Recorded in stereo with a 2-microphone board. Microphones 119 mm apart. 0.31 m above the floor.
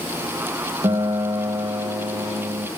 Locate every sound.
0.8 s a guitar: 45° right (ahead or behind), 1.9 m